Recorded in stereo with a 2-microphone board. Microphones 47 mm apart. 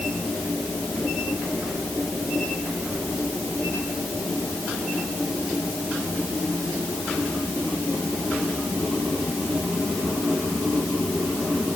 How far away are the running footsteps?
No running footsteps in this recording.